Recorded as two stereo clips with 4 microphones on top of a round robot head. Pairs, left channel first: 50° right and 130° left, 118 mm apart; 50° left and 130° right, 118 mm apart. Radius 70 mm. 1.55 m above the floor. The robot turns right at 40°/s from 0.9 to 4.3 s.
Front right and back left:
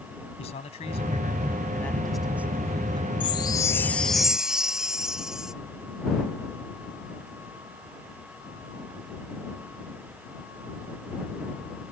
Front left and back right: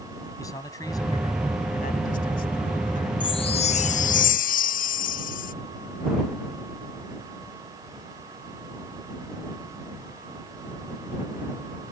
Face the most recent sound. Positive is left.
turn(degrees=40)